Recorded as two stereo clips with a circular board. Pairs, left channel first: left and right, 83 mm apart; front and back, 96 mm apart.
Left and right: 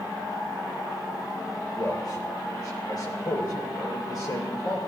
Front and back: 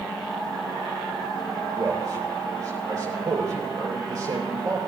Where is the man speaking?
125° left, 8 m.